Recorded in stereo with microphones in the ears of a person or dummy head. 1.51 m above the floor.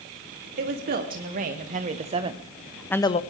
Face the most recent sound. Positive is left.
turn(degrees=35)  # may be behind; listen again after turning